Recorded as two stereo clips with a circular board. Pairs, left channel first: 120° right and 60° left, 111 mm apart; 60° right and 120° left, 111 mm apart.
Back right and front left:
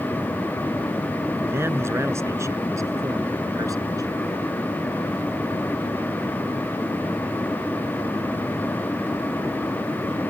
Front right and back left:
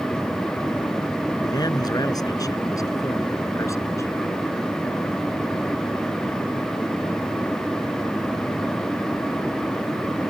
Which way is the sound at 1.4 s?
10° right.